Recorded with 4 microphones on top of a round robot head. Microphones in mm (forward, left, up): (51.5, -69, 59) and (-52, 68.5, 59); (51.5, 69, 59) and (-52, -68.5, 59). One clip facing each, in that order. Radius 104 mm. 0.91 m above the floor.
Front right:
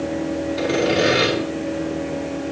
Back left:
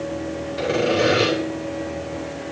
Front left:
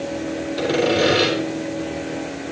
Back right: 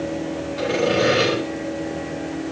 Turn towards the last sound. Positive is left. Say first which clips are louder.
# even, front left 1 dB
turn(degrees=0)